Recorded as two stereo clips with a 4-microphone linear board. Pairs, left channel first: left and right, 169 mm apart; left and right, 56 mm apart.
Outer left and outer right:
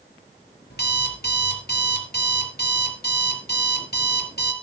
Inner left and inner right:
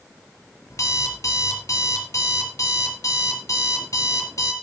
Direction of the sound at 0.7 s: 60° left (ahead or behind).